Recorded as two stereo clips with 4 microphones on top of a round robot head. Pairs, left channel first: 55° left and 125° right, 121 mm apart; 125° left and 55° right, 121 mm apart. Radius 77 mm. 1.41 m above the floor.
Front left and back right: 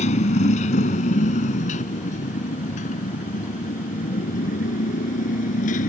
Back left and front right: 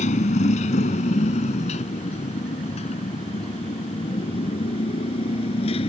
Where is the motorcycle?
90° left; by 5.9 s 80° left.